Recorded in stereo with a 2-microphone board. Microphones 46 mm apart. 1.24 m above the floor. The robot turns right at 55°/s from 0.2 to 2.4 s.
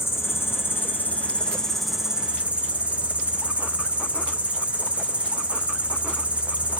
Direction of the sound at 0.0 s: 90° left.